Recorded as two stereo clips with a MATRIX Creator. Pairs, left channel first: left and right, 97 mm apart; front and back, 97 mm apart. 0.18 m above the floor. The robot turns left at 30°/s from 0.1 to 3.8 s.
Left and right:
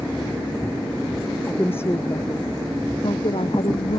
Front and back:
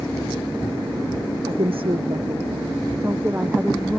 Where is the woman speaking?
165° left; by 4.0 s 95° left.